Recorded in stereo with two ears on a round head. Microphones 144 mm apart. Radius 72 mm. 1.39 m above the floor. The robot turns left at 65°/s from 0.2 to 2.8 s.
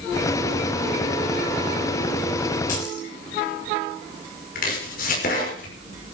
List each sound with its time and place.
2.7 s keys jangling: 55° left (ahead or behind), 5.5 m; by 3.1 s 65° left (ahead or behind), 5.5 m
4.5 s chopping: 60° left (ahead or behind), 5 m